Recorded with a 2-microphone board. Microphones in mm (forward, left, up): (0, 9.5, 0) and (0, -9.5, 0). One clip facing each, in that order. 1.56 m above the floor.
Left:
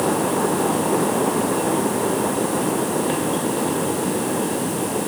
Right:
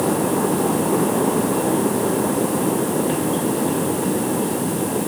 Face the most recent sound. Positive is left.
No sound to turn to.